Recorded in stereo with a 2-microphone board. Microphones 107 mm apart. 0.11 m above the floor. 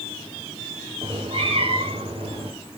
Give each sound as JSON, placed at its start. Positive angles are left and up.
{"t": 1.0, "sound": "a cat meowing", "side_deg": -60, "distance_m": 8.5}